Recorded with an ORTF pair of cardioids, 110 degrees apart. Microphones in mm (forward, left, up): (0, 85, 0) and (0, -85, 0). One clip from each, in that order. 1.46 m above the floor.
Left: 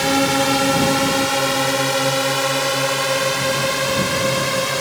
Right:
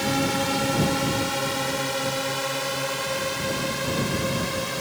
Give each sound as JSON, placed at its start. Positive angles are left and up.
{"t": 0.0, "sound": "a drone", "azimuth_deg": 45}